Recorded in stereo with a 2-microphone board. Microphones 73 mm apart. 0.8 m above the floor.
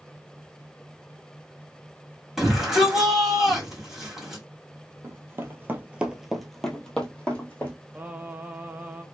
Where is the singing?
25° right (ahead or behind), 0.6 m.